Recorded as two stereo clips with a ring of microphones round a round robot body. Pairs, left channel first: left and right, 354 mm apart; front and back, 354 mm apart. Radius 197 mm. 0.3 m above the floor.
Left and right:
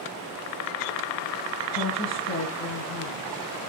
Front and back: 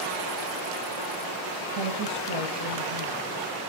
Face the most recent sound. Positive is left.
turn(degrees=135)